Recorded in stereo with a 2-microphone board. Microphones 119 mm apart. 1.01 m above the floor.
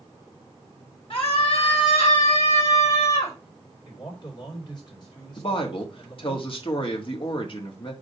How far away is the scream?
About 3 m.